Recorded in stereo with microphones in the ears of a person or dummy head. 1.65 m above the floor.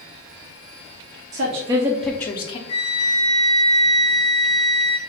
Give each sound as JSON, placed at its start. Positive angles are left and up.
{"t": 1.3, "sound": "a woman speaking", "side_deg": -45, "distance_m": 0.8}
{"t": 2.7, "sound": "a flute", "side_deg": 25, "distance_m": 0.6}